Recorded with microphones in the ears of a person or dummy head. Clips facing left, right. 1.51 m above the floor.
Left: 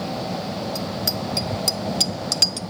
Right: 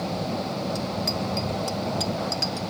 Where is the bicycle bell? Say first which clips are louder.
Even; 5° left (ahead or behind); by 2.7 s 60° left (ahead or behind).